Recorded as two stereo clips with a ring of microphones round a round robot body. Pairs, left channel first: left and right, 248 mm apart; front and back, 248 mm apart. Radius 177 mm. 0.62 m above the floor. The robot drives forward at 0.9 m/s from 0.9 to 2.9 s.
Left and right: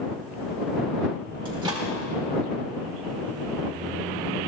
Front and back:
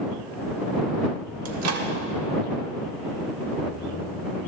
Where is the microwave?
160° right, 1.3 m; by 1.9 s 165° right, 1.6 m.